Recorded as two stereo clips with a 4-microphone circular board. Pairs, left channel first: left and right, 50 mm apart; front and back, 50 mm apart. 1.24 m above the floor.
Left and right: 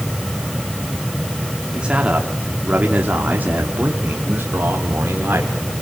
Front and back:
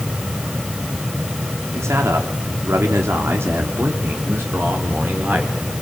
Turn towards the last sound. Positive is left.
turn(degrees=-135)